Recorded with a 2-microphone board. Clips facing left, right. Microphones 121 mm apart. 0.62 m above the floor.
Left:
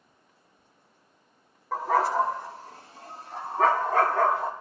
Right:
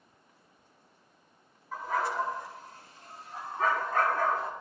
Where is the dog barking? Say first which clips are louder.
Left 7 dB; 85° left, 7 m; by 4.5 s 80° left, 9 m.